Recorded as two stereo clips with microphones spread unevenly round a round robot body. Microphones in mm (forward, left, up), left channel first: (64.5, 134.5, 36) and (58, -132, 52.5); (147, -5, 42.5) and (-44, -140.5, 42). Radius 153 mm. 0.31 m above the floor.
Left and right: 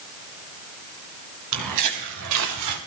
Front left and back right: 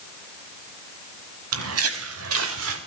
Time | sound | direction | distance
1.5 | footsteps | 125° right | 4.5 m